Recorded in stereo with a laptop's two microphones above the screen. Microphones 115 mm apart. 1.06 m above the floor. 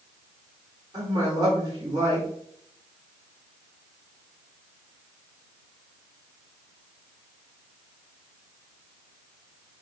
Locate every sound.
0.9 s a woman speaking: 35° right (ahead or behind), 3.5 m